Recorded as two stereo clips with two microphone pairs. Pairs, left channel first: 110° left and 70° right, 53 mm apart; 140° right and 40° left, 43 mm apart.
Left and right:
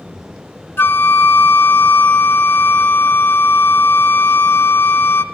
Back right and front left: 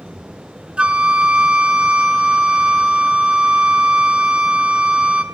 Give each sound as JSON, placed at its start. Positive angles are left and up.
{"t": 0.8, "sound": "a flute", "azimuth_deg": 90, "distance_m": 0.5}